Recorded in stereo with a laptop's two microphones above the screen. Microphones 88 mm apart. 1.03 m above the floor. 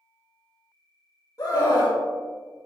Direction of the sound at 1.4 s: 40° left (ahead or behind).